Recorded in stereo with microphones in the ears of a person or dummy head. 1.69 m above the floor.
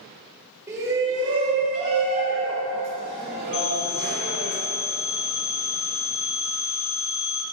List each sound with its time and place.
0.7 s a shout: 15° right (ahead or behind), 1.4 m; by 4.5 s 75° right (ahead or behind), 2.5 m
3.5 s a phone ringing: 65° left (ahead or behind), 1.9 m